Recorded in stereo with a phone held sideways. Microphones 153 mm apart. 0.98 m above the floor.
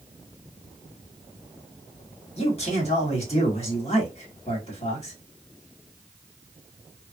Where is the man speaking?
45° left (ahead or behind), 1.5 m.